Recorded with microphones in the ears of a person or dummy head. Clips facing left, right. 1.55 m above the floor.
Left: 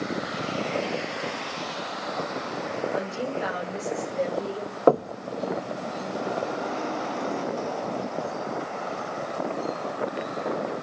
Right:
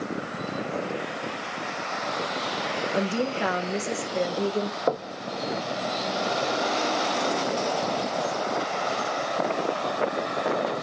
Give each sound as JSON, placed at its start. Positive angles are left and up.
{"t": 2.9, "sound": "a woman speaking", "side_deg": -55, "distance_m": 1.8}
{"t": 4.9, "sound": "knocking", "side_deg": 70, "distance_m": 0.7}